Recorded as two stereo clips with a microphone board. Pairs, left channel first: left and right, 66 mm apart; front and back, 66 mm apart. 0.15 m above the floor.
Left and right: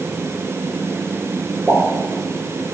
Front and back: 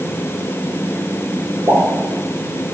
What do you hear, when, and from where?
1.7 s a pop: 165° right, 0.8 m